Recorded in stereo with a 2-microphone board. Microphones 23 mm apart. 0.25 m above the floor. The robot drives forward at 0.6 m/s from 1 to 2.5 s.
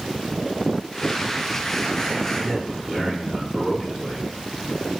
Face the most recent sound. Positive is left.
turn(degrees=10)  # may be behind; listen again after turning